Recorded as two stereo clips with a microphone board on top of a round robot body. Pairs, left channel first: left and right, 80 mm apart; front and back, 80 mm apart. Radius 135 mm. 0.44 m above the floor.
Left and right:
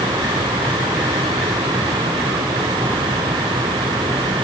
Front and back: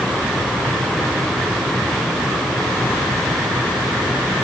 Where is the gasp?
I don't hear a gasp.